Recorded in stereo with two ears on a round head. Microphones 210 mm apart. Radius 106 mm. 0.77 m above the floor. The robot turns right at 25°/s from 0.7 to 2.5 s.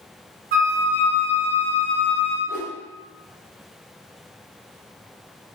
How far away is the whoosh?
About 0.6 m.